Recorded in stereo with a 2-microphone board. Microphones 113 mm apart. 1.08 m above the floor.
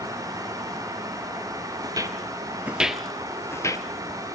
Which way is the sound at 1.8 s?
35° right (ahead or behind).